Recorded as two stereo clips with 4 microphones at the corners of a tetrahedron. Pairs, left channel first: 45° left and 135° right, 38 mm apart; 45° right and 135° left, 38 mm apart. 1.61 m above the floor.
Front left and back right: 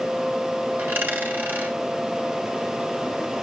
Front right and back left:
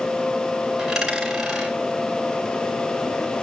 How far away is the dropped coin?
About 5 m.